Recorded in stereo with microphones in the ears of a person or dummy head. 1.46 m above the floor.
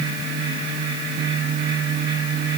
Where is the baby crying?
No baby crying in this recording.